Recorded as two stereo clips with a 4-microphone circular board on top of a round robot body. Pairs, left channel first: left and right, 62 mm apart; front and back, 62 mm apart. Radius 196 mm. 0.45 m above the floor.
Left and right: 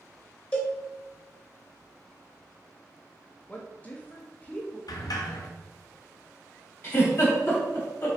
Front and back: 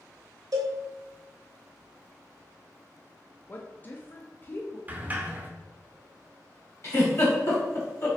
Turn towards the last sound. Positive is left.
turn(degrees=35)